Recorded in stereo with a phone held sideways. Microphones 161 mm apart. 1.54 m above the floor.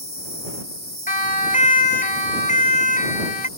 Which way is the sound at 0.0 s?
75° left (ahead or behind).